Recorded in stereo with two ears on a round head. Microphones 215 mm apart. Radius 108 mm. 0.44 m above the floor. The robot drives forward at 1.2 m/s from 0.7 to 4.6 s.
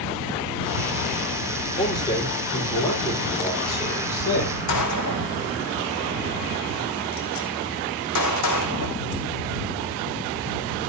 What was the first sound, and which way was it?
A man speaking, 20° left (ahead or behind).